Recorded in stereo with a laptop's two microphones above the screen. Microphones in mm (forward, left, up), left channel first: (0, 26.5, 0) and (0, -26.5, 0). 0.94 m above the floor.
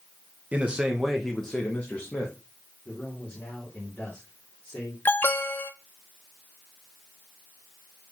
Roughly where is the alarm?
Left.